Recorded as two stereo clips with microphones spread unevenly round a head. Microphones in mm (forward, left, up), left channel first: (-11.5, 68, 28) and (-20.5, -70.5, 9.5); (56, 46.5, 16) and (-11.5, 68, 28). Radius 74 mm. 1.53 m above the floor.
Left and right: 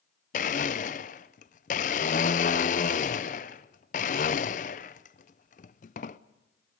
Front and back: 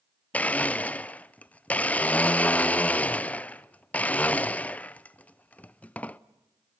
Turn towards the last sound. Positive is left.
turn(degrees=55)